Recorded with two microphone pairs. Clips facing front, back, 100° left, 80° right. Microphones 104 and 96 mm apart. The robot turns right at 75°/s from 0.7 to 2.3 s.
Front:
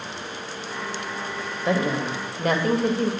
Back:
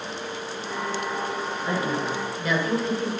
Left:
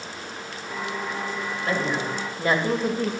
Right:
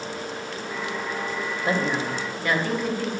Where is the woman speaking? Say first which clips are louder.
Front 4 dB, right 1 dB; 10° right, 2 m; by 3.1 s 35° left, 2 m.